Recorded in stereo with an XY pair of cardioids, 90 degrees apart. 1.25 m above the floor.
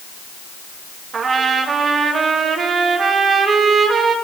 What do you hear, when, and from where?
1.1 s a trumpet: 60° right, 1.7 m